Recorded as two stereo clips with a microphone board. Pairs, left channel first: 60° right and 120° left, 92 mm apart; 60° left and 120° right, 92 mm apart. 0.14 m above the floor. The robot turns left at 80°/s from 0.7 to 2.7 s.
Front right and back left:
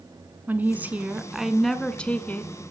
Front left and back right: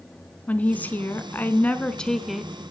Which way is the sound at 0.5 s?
100° left.